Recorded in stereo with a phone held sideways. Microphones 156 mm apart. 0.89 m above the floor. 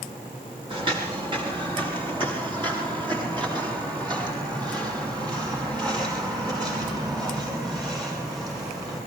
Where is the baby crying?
I don't hear a baby crying.